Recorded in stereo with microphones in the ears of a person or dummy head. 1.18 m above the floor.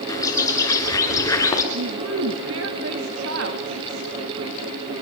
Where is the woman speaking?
70° right (ahead or behind), 2.5 m.